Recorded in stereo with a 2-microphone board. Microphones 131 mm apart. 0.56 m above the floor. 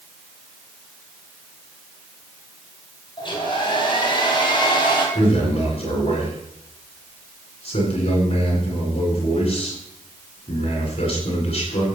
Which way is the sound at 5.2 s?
45° left (ahead or behind).